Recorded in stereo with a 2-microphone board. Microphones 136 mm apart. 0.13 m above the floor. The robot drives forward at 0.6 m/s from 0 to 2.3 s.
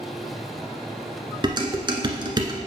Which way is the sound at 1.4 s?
35° right (ahead or behind).